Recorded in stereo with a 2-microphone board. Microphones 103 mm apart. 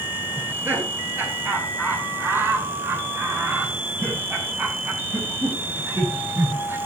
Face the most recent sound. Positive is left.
turn(degrees=-20)  # may be behind; listen again after turning